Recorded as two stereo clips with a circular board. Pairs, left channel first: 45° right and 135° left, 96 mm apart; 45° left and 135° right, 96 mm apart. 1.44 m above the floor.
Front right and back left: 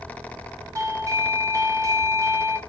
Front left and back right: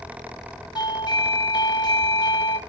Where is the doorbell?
80° left, 0.5 m.